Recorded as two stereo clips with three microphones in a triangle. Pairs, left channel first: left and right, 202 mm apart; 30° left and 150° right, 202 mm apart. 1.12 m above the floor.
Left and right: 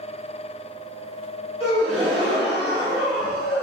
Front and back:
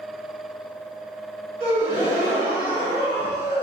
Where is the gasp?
175° left, 1.8 m.